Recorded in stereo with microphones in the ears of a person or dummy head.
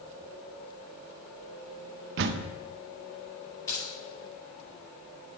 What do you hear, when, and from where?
2.2 s a door slam: 65° right (ahead or behind), 0.6 m
3.7 s keys jangling: 20° left (ahead or behind), 4.5 m